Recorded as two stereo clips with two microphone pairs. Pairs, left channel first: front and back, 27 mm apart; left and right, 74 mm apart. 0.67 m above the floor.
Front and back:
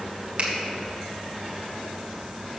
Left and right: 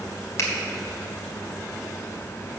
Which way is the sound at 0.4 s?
140° left.